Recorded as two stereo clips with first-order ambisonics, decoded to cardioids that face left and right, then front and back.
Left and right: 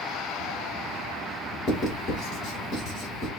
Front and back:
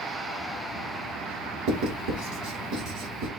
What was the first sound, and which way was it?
Writing, 150° left.